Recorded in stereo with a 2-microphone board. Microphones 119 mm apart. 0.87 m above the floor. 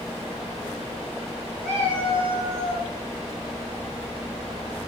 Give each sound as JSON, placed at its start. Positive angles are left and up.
{"t": 1.6, "sound": "a cat meowing", "side_deg": 15, "distance_m": 1.6}